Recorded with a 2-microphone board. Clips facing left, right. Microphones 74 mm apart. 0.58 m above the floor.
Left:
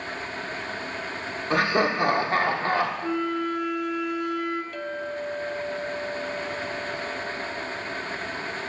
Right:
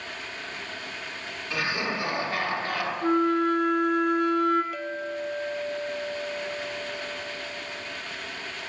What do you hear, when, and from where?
1.5 s laughter: 50° left (ahead or behind), 1.7 m; by 2.9 s 35° left (ahead or behind), 1.6 m
3.0 s a flute: 55° right (ahead or behind), 1.0 m
4.7 s a clink: 5° right (ahead or behind), 0.6 m